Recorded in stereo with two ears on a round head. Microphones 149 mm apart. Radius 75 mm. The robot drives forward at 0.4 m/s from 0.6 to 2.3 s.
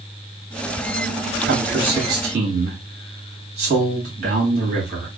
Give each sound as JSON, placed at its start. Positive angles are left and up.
{"t": 1.5, "sound": "a man speaking", "side_deg": -60, "distance_m": 1.6}